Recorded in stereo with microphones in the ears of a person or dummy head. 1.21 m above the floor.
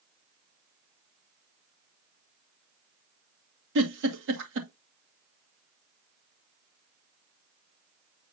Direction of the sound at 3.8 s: 70° right (ahead or behind).